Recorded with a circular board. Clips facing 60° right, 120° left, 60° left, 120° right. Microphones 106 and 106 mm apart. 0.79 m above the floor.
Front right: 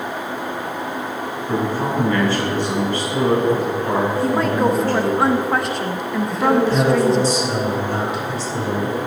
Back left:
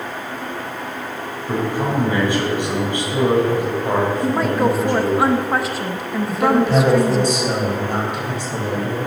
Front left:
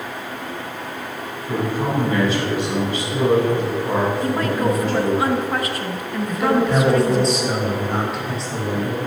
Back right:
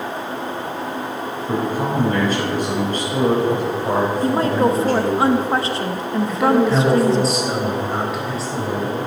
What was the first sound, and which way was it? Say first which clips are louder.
A man speaking: even, back right 1 dB; 165° right.